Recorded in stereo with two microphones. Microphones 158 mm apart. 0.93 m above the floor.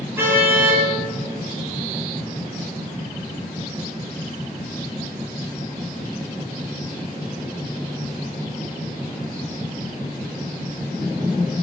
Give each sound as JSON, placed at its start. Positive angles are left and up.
{"t": 0.2, "sound": "a car horn", "side_deg": -15, "distance_m": 9.5}